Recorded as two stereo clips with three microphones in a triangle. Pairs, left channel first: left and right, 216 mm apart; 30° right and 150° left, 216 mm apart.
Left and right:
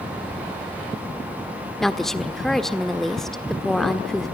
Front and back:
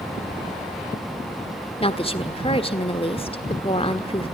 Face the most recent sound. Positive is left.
turn(degrees=5)